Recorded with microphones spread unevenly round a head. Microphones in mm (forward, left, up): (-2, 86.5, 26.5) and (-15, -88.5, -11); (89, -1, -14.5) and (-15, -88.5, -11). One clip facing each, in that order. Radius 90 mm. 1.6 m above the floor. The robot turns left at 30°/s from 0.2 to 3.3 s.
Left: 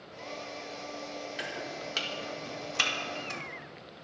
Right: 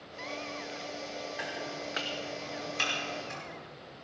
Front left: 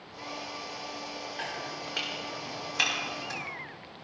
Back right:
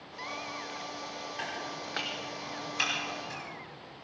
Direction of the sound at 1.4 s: 135° left.